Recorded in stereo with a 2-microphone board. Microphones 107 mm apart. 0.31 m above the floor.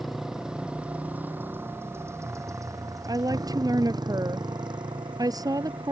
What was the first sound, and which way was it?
A motorcycle, centre (ahead or behind).